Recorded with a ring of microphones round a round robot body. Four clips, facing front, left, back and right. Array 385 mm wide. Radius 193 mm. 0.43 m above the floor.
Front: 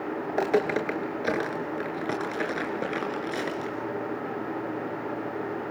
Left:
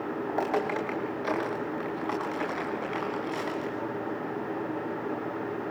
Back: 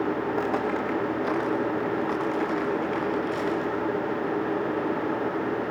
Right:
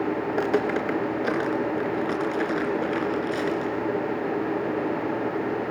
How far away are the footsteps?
About 4.5 m.